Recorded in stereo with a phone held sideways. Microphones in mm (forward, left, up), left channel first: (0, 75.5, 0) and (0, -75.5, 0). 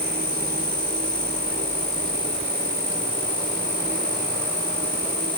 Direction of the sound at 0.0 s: 75° right (ahead or behind).